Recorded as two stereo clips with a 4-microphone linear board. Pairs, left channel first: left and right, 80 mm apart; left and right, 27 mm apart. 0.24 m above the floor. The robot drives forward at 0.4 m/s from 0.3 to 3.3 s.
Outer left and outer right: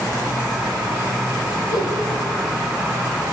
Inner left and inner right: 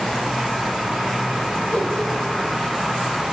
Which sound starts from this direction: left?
A whoosh, at 1.7 s.